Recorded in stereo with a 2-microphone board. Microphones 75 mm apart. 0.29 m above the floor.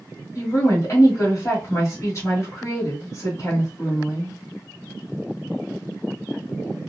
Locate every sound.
0.3 s a woman speaking: 45° left (ahead or behind), 1.3 m